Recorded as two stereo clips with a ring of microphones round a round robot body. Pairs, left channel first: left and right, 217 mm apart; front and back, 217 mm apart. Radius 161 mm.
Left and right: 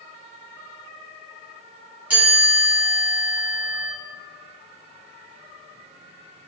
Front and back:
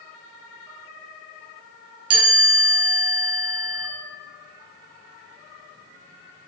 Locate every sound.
2.1 s a chime: 175° right, 1.3 m